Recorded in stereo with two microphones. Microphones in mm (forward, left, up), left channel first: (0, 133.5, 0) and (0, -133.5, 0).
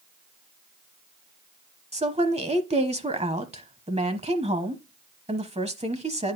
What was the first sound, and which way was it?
A woman speaking, 25° right (ahead or behind).